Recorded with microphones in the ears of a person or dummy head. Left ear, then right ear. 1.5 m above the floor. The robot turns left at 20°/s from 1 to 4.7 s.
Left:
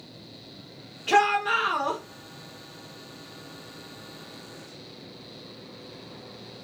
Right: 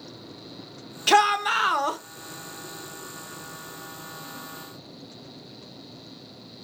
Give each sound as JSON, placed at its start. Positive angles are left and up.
{"t": 1.1, "sound": "a shout", "side_deg": -70, "distance_m": 0.8}